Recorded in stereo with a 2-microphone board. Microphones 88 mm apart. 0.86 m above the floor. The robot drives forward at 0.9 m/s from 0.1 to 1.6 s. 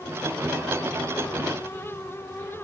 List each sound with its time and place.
Only background noise.